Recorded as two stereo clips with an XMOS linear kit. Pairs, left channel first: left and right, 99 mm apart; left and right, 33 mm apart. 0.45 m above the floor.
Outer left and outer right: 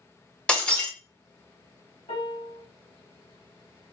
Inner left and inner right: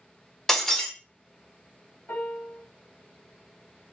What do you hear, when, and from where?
0.5 s breaking glass: 10° left (ahead or behind), 0.6 m
2.1 s a piano: 70° left (ahead or behind), 1.6 m